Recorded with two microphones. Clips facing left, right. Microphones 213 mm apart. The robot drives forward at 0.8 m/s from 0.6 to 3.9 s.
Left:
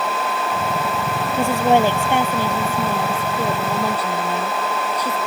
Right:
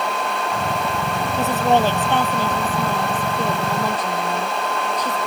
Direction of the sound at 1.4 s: 15° left (ahead or behind).